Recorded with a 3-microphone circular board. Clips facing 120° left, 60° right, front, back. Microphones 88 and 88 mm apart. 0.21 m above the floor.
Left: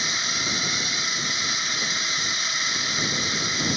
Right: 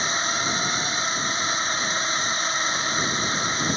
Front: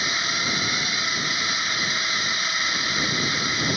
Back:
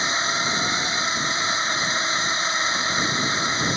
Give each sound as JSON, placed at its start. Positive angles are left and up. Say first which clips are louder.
{"t": 0.0, "sound": "a drone", "louder": "right 4 dB, back 3 dB", "azimuth_deg": -115}